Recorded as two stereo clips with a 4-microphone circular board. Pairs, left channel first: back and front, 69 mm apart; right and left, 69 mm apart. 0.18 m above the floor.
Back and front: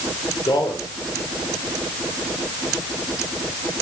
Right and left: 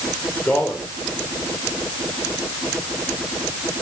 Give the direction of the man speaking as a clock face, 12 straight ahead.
5 o'clock.